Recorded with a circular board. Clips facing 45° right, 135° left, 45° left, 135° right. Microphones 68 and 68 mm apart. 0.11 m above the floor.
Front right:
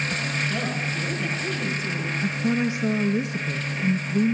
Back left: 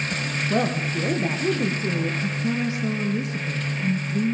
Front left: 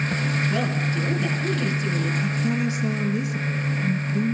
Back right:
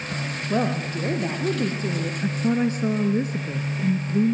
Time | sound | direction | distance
0.5 | a woman speaking | 175° left | 4 m
2.2 | a woman speaking | 105° right | 1.6 m